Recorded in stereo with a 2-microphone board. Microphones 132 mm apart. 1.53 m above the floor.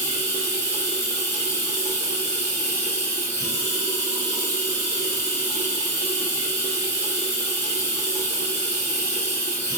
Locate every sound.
0.0 s running water: 20° left (ahead or behind), 1.3 m